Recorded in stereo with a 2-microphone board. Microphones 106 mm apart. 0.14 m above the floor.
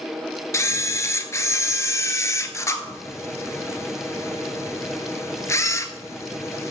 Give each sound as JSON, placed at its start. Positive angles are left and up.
{"t": 0.5, "sound": "a camera shutter", "side_deg": 30, "distance_m": 0.6}